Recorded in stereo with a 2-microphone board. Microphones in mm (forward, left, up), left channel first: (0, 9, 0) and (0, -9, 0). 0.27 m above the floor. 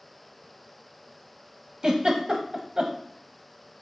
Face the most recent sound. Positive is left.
turn(degrees=-45)  # may be behind; listen again after turning